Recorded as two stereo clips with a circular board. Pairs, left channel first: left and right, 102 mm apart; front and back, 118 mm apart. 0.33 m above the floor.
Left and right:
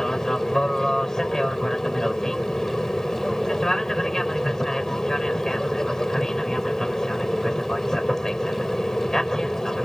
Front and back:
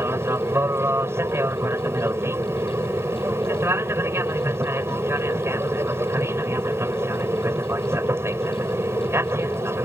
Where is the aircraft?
165° left.